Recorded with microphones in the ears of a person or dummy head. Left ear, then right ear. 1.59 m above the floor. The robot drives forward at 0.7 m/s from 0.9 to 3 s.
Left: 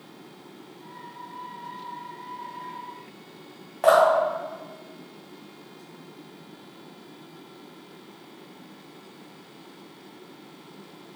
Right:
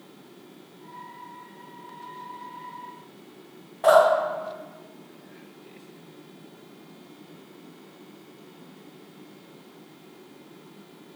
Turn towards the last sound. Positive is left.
turn(degrees=35)  # may be behind; listen again after turning